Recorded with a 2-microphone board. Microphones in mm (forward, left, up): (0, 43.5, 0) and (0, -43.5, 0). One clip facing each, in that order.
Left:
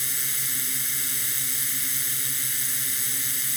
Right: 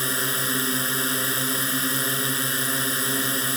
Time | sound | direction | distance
0.0 | a drone | 60° right (ahead or behind) | ?